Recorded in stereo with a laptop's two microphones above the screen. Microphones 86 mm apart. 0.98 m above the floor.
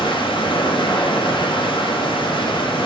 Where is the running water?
75° left (ahead or behind), 1.0 m.